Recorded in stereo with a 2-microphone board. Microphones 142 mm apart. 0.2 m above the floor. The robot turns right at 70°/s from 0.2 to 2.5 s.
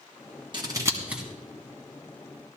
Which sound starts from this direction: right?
Scissors, at 0.5 s.